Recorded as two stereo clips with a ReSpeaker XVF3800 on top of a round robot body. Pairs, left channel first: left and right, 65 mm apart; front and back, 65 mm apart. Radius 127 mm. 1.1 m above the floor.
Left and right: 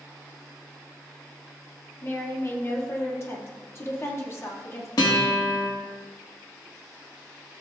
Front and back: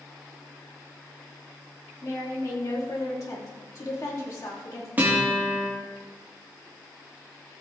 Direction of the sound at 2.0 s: 40° left.